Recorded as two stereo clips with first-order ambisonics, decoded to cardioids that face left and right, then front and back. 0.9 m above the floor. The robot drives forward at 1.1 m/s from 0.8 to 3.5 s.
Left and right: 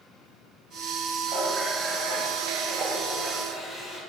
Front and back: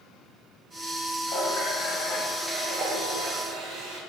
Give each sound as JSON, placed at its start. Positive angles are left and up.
{"t": 1.3, "sound": "a running tap", "azimuth_deg": -20, "distance_m": 1.4}